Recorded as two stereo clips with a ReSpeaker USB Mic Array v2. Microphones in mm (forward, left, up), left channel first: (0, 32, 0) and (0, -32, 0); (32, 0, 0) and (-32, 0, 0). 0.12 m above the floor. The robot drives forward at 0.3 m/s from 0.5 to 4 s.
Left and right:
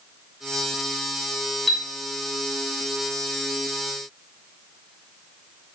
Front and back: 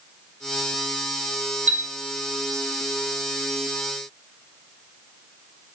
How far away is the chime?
About 0.7 m.